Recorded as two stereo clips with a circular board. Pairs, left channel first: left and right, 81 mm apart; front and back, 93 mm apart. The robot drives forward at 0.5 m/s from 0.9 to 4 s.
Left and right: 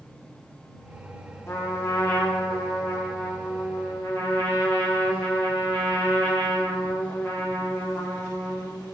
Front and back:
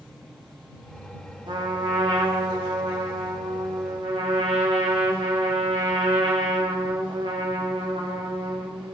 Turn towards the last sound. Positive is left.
turn(degrees=160)